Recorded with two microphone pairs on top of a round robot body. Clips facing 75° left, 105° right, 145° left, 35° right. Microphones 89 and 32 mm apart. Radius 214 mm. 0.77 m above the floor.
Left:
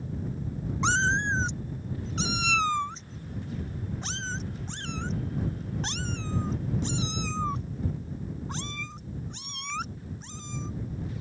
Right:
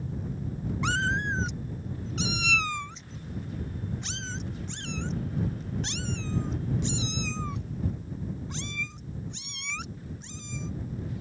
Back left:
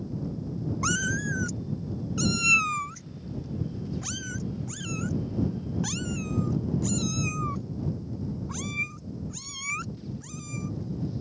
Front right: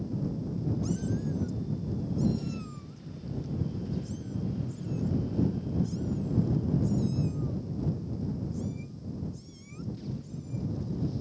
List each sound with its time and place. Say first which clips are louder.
0.8 s a cat meowing: left 3 dB, back left 5 dB; 145° left; by 10.7 s 125° left